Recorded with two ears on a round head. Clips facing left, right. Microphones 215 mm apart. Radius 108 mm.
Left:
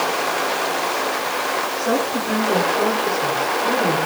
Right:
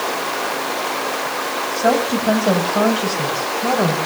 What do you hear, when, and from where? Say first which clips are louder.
1.8 s a woman speaking: right 4 dB; 85° right, 8 m